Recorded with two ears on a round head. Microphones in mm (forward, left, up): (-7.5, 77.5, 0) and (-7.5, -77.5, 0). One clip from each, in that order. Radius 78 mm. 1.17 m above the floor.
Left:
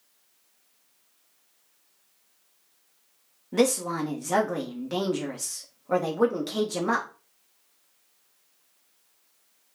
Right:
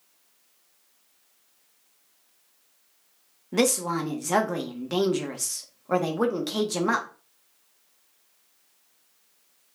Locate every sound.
3.5 s a woman speaking: 15° right (ahead or behind), 1.1 m